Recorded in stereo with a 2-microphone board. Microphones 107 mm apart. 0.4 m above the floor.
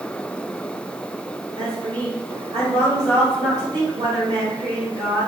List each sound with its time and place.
1.6 s a woman speaking: 45° right (ahead or behind), 1.7 m